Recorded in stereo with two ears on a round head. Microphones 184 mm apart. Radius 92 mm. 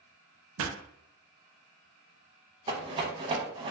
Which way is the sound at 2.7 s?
25° right (ahead or behind).